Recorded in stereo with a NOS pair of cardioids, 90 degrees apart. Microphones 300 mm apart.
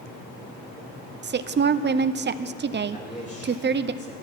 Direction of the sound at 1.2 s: 35° right.